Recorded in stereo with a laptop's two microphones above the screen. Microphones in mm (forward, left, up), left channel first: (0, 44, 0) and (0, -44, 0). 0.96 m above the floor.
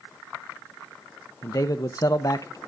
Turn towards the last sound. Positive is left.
turn(degrees=45)  # may be behind; listen again after turning